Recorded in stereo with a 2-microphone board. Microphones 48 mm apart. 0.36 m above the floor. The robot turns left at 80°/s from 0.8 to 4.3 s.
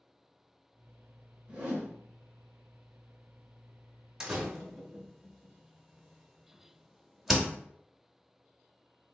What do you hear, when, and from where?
1.5 s a whoosh: 60° right, 1.0 m; by 1.9 s 90° right, 1.0 m
4.2 s a door slam: 15° right (ahead or behind), 0.6 m; by 7.5 s 10° right (ahead or behind), 0.6 m